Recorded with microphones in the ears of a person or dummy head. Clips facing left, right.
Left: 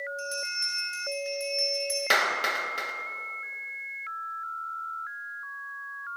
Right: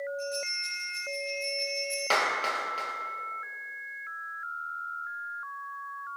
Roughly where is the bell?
Left.